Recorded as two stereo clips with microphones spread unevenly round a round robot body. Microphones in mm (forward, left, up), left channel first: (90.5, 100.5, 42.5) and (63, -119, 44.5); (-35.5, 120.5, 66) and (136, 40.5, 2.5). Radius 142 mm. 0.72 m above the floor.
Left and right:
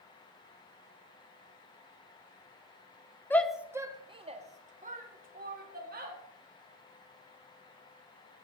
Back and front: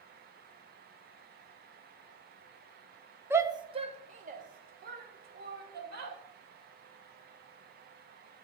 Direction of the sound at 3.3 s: 10° left.